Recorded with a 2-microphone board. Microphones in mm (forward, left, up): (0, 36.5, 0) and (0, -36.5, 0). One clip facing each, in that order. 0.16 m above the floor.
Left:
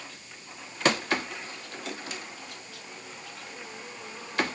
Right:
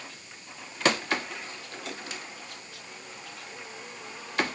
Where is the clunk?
No clunk in this recording.